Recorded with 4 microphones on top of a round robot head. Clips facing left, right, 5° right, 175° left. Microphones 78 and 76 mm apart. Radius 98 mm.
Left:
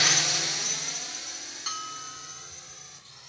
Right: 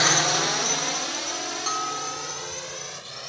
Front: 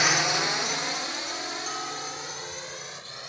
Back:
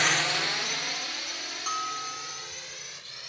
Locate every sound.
0.0 s a drone: 80° right; by 3.3 s 70° right
1.7 s a bell: 145° right